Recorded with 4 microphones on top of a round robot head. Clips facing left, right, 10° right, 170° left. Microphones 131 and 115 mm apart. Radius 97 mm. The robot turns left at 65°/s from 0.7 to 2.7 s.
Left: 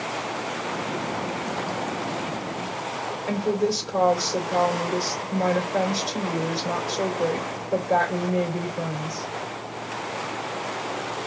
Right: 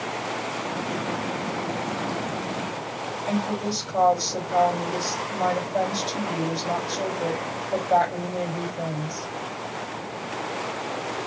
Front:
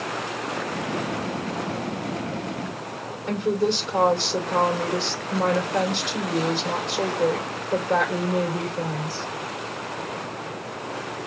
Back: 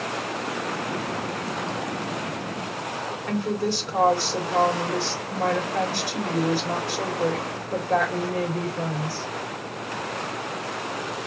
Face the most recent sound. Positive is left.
turn(degrees=55)